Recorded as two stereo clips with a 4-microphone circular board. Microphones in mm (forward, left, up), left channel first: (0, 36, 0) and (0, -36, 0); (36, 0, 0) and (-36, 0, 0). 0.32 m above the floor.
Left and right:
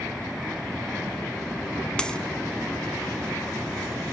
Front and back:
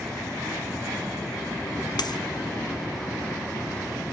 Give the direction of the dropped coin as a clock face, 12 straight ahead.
12 o'clock.